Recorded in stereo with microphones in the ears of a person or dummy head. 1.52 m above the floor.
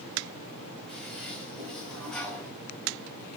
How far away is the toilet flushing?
About 3 m.